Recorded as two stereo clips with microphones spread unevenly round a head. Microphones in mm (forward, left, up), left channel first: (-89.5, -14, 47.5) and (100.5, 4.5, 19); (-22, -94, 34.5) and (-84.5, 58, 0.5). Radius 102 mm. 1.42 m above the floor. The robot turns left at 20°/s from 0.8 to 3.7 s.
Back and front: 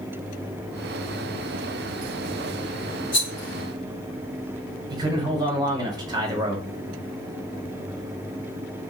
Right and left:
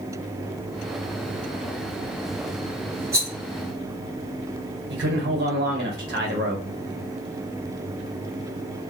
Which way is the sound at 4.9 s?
75° left.